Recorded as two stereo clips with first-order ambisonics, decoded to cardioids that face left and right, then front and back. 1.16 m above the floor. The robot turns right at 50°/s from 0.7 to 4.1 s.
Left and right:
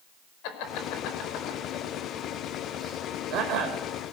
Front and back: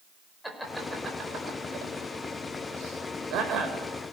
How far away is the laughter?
About 4.5 m.